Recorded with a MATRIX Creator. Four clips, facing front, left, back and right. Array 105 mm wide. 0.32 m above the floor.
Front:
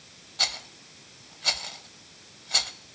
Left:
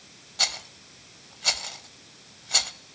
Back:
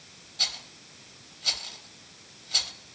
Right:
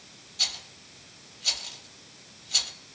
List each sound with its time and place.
0.4 s a rattle: 55° left, 0.7 m